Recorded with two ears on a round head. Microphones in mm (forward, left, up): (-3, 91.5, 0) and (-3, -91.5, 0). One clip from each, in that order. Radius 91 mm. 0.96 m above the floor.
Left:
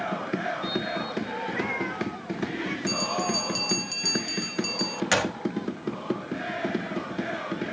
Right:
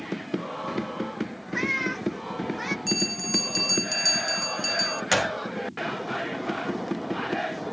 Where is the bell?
15° right (ahead or behind).